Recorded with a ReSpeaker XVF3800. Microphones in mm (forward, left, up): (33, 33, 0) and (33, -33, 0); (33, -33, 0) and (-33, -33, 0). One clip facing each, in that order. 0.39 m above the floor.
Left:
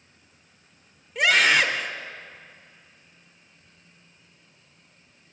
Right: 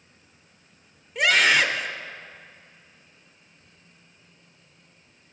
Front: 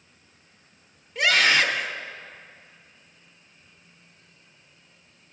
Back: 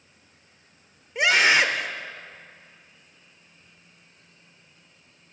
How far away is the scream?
About 1.1 m.